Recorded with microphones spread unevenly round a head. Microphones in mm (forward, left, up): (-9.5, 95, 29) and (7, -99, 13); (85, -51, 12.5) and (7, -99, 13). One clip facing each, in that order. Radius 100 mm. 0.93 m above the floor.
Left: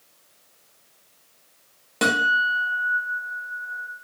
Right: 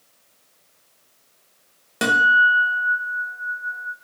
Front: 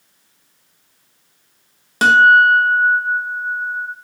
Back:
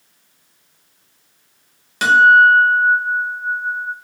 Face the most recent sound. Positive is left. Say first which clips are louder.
# right 1 dB, even
turn(degrees=-10)